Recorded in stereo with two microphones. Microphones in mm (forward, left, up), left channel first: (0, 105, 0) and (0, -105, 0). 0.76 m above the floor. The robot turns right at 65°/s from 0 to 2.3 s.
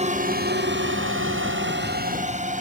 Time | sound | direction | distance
0.0 | a drone | 30° right (ahead or behind) | ?